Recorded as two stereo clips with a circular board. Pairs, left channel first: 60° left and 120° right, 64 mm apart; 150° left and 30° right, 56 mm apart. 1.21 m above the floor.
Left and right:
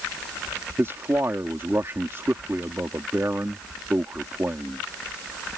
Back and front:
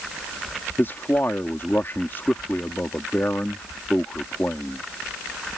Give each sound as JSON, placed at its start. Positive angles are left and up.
{"t": 0.8, "sound": "a man speaking", "azimuth_deg": -165}